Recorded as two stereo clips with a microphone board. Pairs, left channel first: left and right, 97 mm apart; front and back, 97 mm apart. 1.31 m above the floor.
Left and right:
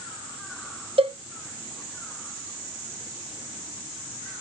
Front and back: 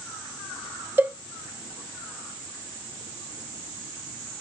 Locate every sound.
1.0 s a cowbell: 110° right, 0.7 m